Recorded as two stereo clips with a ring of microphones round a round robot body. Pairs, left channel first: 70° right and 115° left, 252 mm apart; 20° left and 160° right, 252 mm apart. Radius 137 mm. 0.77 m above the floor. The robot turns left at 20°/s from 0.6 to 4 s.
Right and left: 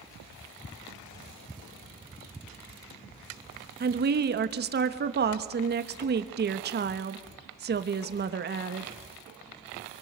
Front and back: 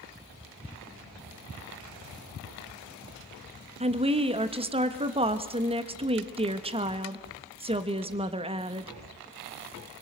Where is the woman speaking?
145° left, 1.1 m.